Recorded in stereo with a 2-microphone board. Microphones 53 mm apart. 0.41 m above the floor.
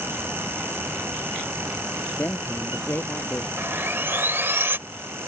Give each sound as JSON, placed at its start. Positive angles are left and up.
{"t": 2.2, "sound": "a man speaking", "side_deg": 35}
{"t": 3.6, "sound": "sawing", "side_deg": -50}